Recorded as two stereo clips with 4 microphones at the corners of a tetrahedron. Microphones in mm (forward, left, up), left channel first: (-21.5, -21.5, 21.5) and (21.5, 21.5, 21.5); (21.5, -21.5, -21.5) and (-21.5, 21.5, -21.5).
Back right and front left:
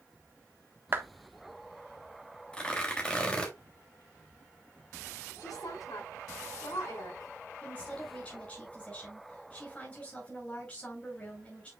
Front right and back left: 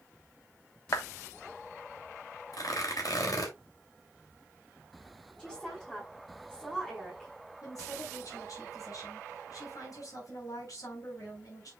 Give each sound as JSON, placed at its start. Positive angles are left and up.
{"t": 0.9, "sound": "a clap", "azimuth_deg": -10, "distance_m": 1.4}
{"t": 2.5, "sound": "tearing paper", "azimuth_deg": -65, "distance_m": 3.0}
{"t": 5.4, "sound": "a woman speaking", "azimuth_deg": -125, "distance_m": 5.5}
{"t": 7.6, "sound": "a woman speaking", "azimuth_deg": -70, "distance_m": 6.0}